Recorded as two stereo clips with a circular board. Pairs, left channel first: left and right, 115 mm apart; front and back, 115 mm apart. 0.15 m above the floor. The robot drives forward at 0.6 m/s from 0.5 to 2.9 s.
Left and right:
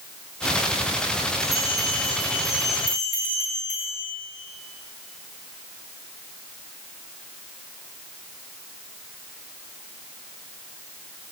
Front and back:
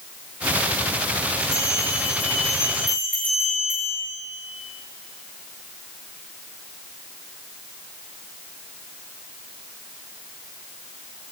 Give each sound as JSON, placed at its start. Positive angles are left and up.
{"t": 1.4, "sound": "a bell", "azimuth_deg": 95, "distance_m": 6.5}